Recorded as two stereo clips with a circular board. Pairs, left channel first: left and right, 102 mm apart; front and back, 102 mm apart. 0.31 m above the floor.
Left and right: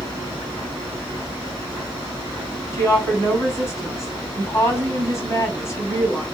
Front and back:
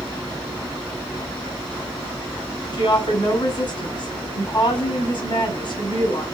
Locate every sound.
2.7 s a woman speaking: 30° left, 1.9 m